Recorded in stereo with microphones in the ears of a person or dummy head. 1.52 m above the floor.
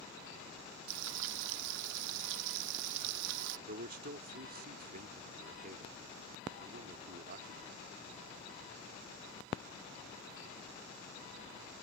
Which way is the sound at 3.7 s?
50° right (ahead or behind).